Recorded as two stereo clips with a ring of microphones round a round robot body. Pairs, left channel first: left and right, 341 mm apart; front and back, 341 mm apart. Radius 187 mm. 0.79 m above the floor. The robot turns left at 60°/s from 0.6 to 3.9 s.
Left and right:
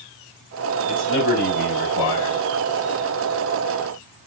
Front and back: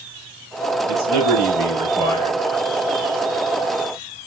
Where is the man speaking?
160° left, 5 m; by 2.4 s 70° left, 5 m.